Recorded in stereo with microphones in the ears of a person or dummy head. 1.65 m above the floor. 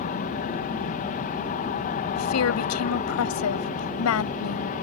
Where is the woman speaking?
85° left.